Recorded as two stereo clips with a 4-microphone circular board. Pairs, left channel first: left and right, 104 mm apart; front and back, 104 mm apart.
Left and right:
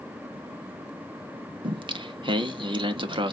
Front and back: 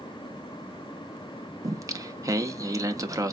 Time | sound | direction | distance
1.6 | singing | 125° right | 0.6 m